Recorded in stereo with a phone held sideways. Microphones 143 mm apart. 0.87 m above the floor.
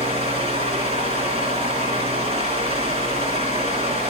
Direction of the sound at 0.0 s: 45° right (ahead or behind).